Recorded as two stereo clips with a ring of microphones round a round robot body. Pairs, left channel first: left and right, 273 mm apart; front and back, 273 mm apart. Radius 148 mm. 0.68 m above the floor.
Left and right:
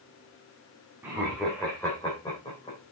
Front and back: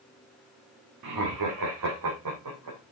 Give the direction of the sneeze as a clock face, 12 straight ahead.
I don't hear a sneeze.